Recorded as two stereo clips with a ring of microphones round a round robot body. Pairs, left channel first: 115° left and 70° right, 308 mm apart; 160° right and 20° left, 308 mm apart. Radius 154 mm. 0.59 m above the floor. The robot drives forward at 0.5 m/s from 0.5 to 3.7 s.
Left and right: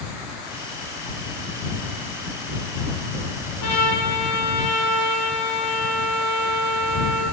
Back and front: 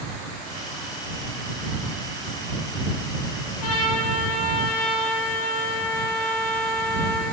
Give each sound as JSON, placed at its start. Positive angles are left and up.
{"t": 3.6, "sound": "a trumpet", "azimuth_deg": 155, "distance_m": 9.0}